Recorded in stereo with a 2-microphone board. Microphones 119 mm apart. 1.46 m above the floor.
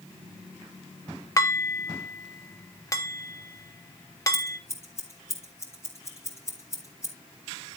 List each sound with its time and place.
1.4 s dishes clattering: 30° left (ahead or behind), 1.1 m
4.3 s scissors: 25° left (ahead or behind), 4 m